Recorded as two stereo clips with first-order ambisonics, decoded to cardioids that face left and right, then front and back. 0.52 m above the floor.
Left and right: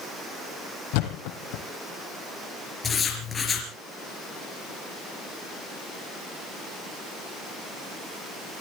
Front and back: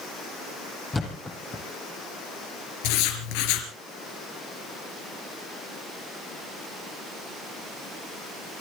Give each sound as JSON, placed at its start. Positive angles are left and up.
{"t": 0.9, "sound": "a thud", "azimuth_deg": 80, "distance_m": 3.5}
{"t": 2.8, "sound": "writing", "azimuth_deg": 15, "distance_m": 4.0}